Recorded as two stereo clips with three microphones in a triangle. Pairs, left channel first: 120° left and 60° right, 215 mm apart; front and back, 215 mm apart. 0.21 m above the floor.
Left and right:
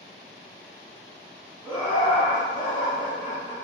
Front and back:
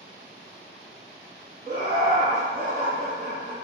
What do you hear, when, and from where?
1.6 s laughter: straight behind, 1.7 m